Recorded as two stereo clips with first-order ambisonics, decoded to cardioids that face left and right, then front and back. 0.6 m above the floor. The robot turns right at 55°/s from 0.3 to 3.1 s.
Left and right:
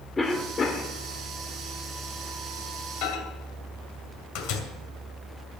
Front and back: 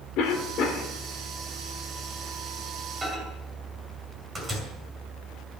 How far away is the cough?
About 1.6 m.